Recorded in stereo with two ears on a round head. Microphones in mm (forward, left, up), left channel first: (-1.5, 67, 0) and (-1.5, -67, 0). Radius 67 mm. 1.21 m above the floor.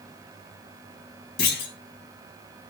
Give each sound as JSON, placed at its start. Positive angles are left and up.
{"t": 1.4, "sound": "a clunk", "side_deg": 70, "distance_m": 3.0}